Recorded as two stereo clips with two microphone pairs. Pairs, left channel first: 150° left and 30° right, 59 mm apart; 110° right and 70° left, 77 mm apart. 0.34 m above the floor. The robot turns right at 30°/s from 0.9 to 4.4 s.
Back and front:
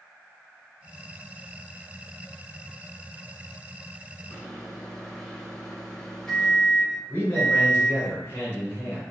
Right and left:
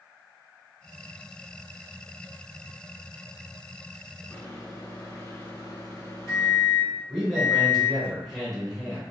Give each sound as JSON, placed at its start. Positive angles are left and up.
{"t": 4.3, "sound": "a microwave", "azimuth_deg": -140, "distance_m": 1.0}
{"t": 7.1, "sound": "a man speaking", "azimuth_deg": 160, "distance_m": 1.9}